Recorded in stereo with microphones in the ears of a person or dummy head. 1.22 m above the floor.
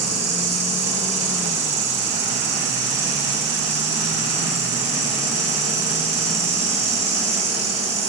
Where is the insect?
10° right (ahead or behind), 4 m.